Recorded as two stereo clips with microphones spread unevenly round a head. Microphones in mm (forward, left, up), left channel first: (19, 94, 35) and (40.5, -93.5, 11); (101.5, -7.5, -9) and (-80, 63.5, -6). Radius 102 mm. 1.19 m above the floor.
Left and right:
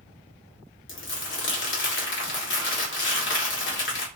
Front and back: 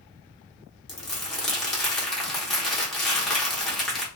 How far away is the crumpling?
About 1.0 m.